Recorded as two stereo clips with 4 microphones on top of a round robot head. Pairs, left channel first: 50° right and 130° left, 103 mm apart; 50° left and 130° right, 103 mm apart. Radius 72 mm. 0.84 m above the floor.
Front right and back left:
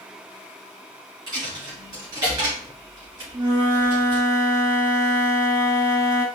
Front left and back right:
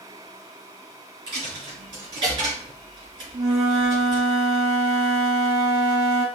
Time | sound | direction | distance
1.3 | a dropped coin | 175° right | 3.5 m
3.3 | a flute | 175° right | 3.5 m